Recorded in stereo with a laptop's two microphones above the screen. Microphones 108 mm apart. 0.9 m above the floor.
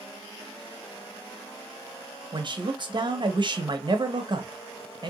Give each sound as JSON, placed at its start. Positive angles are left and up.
{"t": 2.3, "sound": "a man speaking", "side_deg": -45, "distance_m": 0.8}